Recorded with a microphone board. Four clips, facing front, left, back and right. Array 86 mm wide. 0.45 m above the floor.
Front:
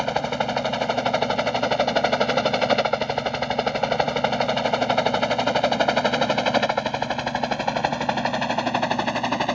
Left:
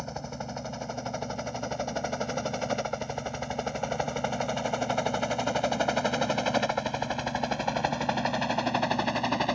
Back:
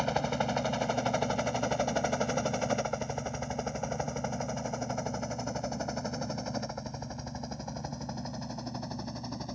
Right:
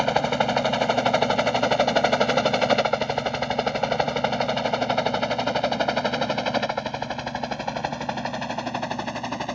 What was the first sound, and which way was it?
A helicopter, 60° right.